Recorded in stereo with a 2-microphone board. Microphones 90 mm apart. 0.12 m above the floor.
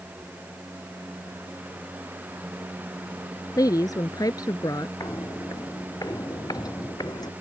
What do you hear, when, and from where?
3.6 s a woman speaking: 45° left (ahead or behind)
5.0 s footsteps: 35° left (ahead or behind); by 7.3 s 50° left (ahead or behind)